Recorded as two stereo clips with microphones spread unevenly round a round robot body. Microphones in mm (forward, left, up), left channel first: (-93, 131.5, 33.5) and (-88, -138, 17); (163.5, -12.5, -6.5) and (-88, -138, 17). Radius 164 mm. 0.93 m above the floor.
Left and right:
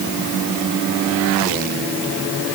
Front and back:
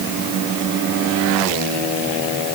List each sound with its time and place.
Only background noise.